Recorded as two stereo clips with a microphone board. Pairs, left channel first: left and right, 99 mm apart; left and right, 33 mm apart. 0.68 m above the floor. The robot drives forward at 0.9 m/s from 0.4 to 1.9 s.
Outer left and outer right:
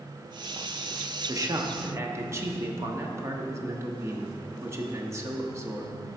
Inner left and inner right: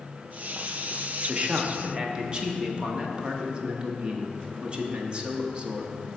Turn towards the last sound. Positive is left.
turn(degrees=-30)  # may be behind; listen again after turning